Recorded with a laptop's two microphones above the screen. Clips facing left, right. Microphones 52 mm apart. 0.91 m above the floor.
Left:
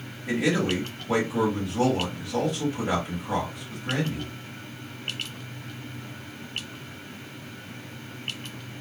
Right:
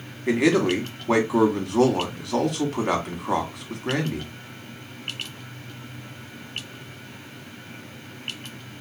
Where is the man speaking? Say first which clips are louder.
Right 5 dB; 60° right (ahead or behind), 1.3 m.